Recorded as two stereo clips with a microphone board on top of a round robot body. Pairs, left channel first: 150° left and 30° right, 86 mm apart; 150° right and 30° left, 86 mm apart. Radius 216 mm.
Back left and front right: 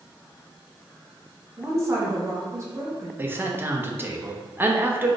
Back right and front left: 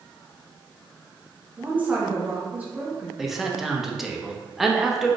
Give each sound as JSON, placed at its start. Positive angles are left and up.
{"t": 1.6, "sound": "a woman speaking", "azimuth_deg": -25, "distance_m": 1.0}
{"t": 3.2, "sound": "a man speaking", "azimuth_deg": -55, "distance_m": 0.7}